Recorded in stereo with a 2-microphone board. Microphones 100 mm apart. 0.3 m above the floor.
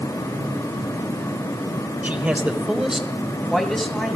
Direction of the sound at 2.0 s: 20° right (ahead or behind).